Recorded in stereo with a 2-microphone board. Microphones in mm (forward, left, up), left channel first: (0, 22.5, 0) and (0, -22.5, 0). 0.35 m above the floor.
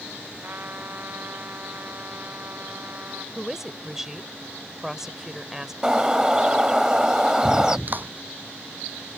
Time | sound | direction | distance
0.4 | a trumpet | 45° right (ahead or behind) | ?
3.4 | a woman speaking | 10° right (ahead or behind) | ?
5.8 | a bird | 15° right (ahead or behind) | ?
7.9 | a clap | 45° right (ahead or behind) | ?